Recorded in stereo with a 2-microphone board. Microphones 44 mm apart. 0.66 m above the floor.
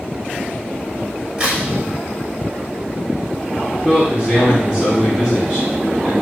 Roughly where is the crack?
Centre.